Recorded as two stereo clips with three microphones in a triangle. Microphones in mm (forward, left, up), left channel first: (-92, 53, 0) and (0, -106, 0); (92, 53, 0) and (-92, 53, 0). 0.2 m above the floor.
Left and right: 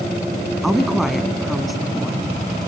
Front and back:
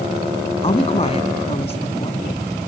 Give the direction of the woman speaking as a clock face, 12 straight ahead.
11 o'clock.